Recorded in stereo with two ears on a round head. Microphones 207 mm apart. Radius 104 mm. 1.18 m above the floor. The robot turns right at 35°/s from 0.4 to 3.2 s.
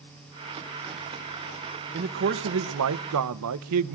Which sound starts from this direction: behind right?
A man speaking, at 1.9 s.